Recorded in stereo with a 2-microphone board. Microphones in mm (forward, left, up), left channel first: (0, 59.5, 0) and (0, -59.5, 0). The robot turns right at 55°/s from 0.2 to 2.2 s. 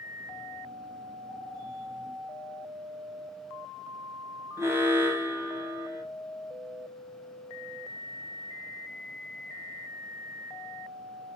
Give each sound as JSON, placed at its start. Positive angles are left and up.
{"t": 4.6, "sound": "an alarm", "side_deg": -20, "distance_m": 0.7}